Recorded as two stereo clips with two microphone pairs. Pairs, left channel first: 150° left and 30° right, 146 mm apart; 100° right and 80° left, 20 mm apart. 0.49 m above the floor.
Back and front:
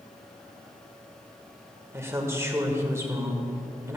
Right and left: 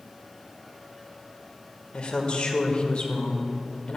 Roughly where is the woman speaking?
Right.